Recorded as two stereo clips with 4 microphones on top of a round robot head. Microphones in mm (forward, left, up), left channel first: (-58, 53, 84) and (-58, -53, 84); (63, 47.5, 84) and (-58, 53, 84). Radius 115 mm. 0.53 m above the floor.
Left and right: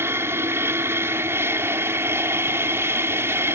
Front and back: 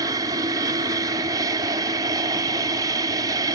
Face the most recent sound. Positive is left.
turn(degrees=-145)